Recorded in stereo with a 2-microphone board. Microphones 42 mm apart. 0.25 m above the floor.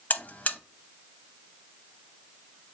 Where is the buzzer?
40° left (ahead or behind), 0.5 m.